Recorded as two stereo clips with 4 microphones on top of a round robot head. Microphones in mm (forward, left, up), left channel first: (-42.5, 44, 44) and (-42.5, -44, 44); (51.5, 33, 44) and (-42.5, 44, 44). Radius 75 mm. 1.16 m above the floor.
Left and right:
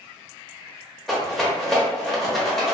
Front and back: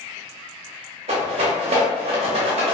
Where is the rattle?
175° left, 0.7 m.